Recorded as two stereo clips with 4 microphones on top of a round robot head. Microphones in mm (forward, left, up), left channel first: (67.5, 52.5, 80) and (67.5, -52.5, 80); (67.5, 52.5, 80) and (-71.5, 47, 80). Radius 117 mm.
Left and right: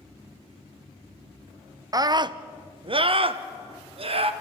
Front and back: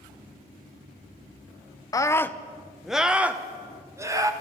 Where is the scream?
55° right, 1.0 m; by 4.3 s 110° right, 1.8 m.